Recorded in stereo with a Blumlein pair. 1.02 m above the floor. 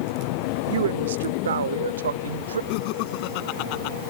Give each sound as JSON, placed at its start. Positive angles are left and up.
{"t": 0.7, "sound": "a woman speaking", "azimuth_deg": -60}
{"t": 2.7, "sound": "laughter", "azimuth_deg": 45}